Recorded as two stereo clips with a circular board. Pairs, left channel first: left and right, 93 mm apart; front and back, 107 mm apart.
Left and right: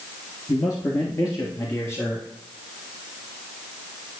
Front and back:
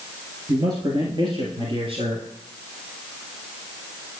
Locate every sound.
0.5 s a man speaking: 130° left, 2 m; by 2.3 s 150° left, 3 m